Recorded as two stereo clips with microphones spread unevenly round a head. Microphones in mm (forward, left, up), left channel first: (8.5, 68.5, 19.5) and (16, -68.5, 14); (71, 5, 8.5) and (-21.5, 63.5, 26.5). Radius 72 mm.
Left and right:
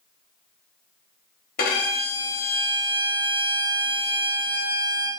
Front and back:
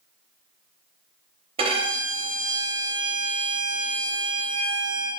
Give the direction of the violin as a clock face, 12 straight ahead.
8 o'clock.